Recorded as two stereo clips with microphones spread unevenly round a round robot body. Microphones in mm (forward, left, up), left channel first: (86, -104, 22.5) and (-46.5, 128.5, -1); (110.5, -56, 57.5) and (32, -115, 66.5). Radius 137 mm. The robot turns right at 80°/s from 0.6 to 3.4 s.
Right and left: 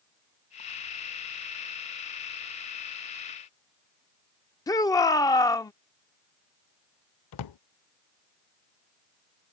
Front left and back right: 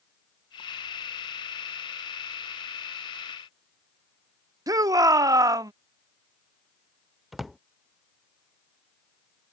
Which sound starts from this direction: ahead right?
A drawer, at 7.3 s.